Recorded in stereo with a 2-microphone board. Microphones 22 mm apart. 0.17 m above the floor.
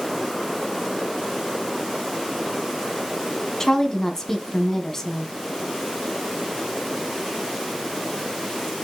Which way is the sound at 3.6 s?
20° left (ahead or behind).